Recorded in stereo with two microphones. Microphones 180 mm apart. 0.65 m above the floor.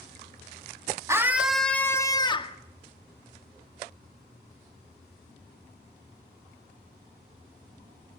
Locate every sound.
1.1 s a scream: 15° right (ahead or behind), 1.3 m; by 2.6 s 30° left (ahead or behind), 1.5 m